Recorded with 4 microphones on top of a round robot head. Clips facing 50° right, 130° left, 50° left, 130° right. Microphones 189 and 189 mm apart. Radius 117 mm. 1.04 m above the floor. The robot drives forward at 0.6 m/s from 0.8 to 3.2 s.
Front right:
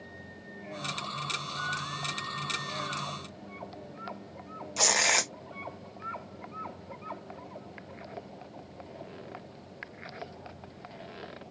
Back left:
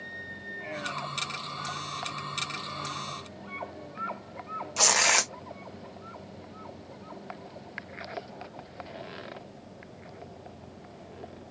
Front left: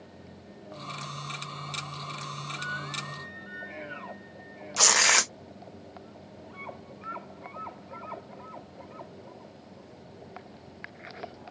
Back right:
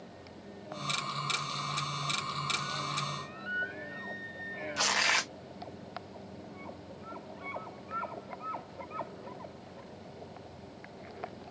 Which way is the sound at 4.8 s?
35° left.